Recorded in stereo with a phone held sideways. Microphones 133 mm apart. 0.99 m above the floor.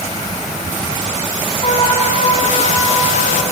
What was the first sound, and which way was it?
A trumpet, 45° left (ahead or behind).